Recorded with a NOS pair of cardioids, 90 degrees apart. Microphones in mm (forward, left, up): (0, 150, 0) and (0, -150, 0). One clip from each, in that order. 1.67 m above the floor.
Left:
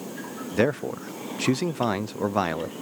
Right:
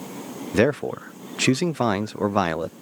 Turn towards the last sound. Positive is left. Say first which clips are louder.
# right 3 dB
turn(degrees=-40)